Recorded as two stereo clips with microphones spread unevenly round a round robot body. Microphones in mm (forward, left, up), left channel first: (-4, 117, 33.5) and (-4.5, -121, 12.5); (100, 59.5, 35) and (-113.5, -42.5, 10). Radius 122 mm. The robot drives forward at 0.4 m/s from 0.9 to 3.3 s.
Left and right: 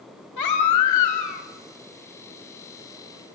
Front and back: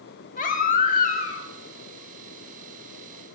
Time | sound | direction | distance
0.4 | a baby crying | 80° left | 1.6 m